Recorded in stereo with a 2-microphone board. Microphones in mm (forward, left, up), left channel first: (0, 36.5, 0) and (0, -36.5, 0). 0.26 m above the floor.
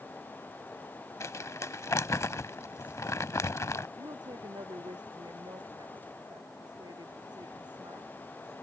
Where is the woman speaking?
80° right.